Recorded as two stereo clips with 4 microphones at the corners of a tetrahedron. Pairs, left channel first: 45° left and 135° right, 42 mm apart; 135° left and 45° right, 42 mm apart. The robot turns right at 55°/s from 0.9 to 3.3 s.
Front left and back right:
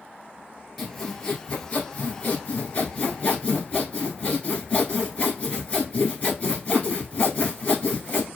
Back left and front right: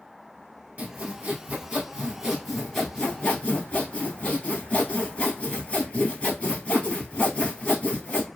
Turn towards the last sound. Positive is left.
turn(degrees=90)